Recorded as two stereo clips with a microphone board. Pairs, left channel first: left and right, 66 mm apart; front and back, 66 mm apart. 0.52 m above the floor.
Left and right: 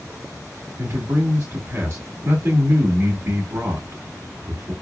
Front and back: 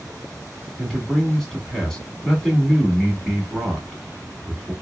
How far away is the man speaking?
About 1.1 m.